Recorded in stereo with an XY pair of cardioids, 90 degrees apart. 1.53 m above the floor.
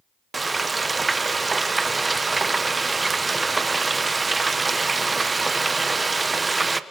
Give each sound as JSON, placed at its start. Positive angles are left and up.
{"t": 0.3, "sound": "frying", "azimuth_deg": -30, "distance_m": 1.1}